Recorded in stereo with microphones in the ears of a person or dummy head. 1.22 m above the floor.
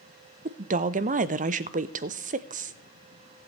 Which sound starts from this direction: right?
A woman speaking, at 0.5 s.